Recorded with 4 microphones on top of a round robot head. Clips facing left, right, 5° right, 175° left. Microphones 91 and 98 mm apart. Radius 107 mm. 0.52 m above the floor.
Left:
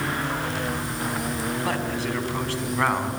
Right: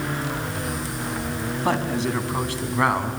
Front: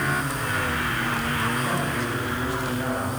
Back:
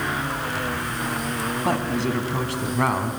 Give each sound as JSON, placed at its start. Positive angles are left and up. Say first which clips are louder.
{"t": 1.6, "sound": "a man speaking", "louder": "right 3 dB, back 3 dB", "azimuth_deg": -150, "distance_m": 5.5}